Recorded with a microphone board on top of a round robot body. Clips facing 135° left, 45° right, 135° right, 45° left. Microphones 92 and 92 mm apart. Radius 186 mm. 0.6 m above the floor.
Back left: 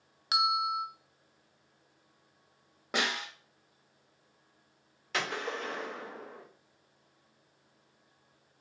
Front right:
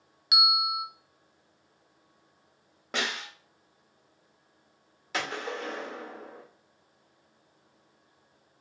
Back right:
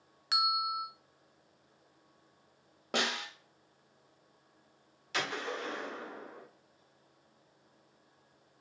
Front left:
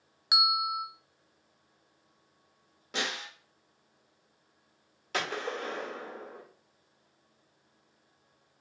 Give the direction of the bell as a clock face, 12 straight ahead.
8 o'clock.